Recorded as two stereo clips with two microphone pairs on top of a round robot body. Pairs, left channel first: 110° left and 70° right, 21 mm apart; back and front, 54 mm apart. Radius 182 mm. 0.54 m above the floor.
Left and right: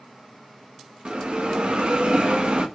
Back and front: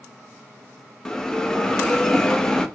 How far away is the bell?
About 0.8 m.